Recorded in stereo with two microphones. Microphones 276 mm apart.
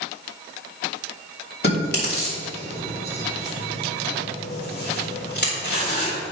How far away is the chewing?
About 4 m.